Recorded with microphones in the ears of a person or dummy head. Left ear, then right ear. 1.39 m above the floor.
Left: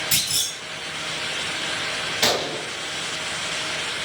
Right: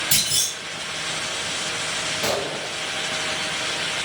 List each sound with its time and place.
0.1 s a clunk: 15° right (ahead or behind), 2 m
2.2 s a gunshot: 40° left (ahead or behind), 0.6 m